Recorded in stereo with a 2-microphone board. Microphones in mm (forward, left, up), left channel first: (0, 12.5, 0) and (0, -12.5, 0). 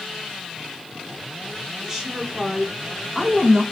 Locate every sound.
1.8 s a woman speaking: 15° right (ahead or behind), 3.5 m